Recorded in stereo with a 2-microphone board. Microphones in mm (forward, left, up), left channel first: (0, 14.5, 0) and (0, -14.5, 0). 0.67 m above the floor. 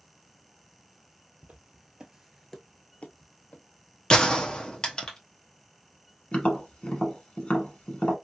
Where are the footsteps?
55° right (ahead or behind), 1.1 m; by 3.6 s 60° left (ahead or behind), 1.2 m.